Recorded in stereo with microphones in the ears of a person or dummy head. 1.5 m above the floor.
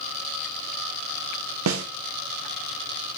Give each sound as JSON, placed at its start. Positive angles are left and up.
{"t": 1.7, "sound": "a snare drum", "side_deg": -75, "distance_m": 0.6}